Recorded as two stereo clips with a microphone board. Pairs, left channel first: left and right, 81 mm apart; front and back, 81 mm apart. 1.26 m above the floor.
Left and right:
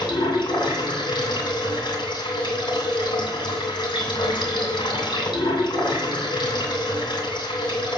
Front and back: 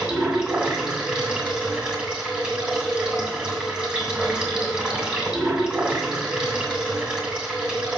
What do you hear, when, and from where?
0.0 s running water: 100° left, 2.5 m